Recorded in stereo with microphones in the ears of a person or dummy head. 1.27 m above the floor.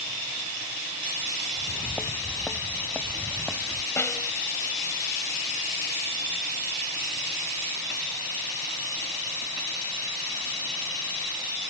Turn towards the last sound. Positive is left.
turn(degrees=10)  # may be behind; listen again after turning